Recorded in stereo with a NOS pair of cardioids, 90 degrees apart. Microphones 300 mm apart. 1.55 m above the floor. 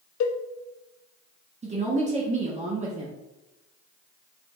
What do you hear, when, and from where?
0.2 s a cowbell: 65° left, 0.5 m
1.6 s a woman speaking: 20° right, 1.3 m